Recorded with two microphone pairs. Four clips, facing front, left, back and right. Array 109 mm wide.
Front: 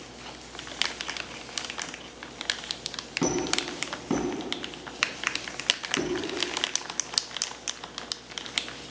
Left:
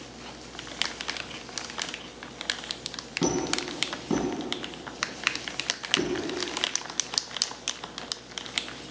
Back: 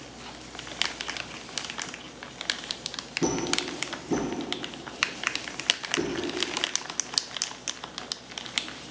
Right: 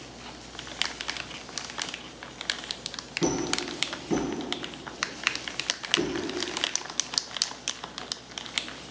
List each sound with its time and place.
3.2 s a squeak: 40° left, 2 m